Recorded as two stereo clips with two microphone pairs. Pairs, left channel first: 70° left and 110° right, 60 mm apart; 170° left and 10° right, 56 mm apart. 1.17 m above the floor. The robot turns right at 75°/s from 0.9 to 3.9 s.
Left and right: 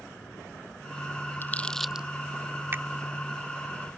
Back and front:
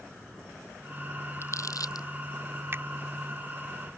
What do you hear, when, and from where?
1.4 s crumpling: 125° left; by 2.1 s 175° left
2.7 s a finger snap: 60° right; by 2.8 s 50° right